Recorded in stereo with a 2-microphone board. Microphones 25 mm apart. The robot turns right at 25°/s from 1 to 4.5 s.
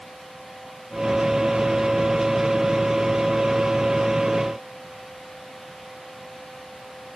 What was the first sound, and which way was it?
Only background noise.